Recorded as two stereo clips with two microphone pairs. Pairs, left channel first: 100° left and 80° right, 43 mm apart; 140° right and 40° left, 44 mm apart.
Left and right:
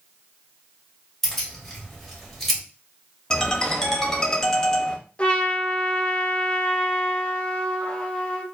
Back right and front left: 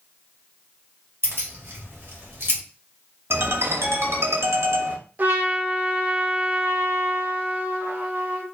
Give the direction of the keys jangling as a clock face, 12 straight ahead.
12 o'clock.